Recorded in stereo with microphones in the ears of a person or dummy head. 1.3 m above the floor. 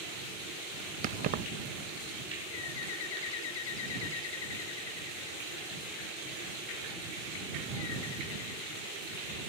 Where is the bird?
65° left (ahead or behind).